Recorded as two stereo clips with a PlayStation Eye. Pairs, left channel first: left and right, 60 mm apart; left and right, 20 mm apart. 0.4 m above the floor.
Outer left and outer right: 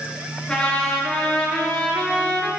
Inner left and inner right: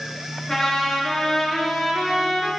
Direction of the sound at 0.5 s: 15° left (ahead or behind).